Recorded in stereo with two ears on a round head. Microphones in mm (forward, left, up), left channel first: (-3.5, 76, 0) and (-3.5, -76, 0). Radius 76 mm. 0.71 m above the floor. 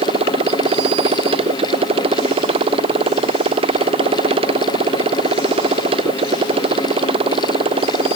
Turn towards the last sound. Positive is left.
turn(degrees=-30)  # may be behind; listen again after turning